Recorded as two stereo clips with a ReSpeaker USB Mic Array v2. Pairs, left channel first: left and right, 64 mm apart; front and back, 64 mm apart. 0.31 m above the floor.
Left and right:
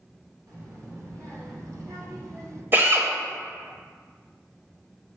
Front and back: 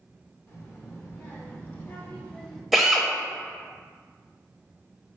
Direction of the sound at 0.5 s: 50° right.